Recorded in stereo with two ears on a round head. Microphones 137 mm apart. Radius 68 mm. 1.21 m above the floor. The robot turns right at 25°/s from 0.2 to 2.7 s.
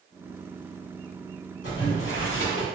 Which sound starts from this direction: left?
Boiling, at 1.6 s.